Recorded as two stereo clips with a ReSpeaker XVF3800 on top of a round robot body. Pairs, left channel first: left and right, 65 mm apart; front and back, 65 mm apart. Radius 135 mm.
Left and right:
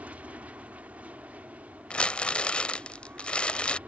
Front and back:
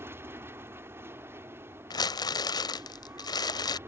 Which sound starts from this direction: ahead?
Crumpling, at 1.9 s.